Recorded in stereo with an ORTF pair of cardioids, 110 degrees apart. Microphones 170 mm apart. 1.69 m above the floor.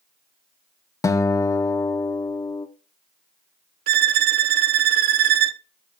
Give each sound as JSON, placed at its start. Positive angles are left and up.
{"t": 1.0, "sound": "a guitar", "azimuth_deg": 20, "distance_m": 0.9}
{"t": 3.9, "sound": "a violin", "azimuth_deg": -70, "distance_m": 0.6}